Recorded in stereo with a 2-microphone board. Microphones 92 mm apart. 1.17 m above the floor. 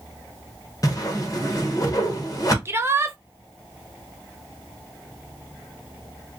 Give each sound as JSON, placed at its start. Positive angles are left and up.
{"t": 0.8, "sound": "a whoosh", "side_deg": 40, "distance_m": 1.3}
{"t": 2.6, "sound": "a shout", "side_deg": -25, "distance_m": 0.8}